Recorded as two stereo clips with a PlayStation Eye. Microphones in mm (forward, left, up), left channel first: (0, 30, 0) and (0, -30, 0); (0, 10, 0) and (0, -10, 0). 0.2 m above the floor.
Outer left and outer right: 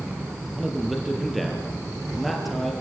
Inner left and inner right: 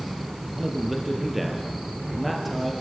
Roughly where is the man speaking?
Centre.